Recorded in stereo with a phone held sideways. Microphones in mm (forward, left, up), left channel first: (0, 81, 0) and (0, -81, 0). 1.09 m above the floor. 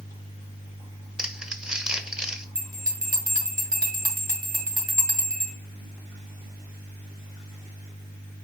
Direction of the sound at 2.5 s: 60° right (ahead or behind).